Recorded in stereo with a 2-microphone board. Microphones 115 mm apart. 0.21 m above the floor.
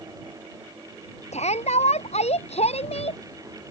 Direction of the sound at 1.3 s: 75° left (ahead or behind).